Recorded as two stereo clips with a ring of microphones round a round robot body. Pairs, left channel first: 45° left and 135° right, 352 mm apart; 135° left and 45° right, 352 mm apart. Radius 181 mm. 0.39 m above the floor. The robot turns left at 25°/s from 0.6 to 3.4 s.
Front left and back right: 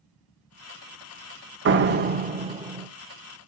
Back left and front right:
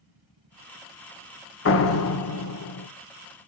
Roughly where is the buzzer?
I don't hear a buzzer.